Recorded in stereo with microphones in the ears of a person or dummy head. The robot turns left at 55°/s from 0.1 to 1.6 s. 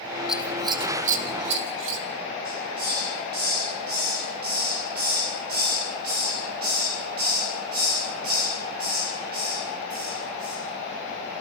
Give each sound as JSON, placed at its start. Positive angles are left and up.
{"t": 0.3, "sound": "scissors", "side_deg": 0, "distance_m": 1.8}
{"t": 2.5, "sound": "a hiss", "side_deg": -50, "distance_m": 5.5}